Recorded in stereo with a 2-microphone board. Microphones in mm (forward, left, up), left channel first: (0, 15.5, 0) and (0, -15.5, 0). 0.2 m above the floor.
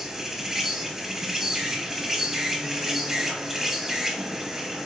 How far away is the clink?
No clink in this recording.